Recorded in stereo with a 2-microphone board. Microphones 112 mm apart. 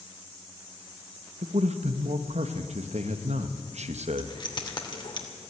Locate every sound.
1.4 s a man speaking: 85° right, 1.2 m
4.2 s keys jangling: 45° left (ahead or behind), 2.5 m